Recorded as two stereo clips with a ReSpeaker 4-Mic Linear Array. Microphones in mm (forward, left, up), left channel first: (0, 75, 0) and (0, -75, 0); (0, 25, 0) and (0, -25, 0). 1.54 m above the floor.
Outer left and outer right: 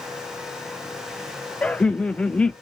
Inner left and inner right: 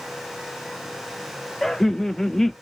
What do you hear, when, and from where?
1.6 s laughter: 10° left (ahead or behind), 0.6 m